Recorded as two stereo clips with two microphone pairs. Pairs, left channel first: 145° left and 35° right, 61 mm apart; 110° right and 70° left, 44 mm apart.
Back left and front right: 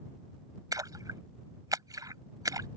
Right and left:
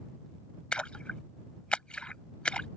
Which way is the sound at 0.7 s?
40° right.